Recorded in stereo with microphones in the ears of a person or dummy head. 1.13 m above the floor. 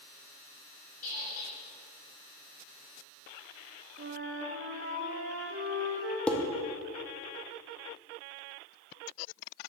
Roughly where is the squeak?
Left.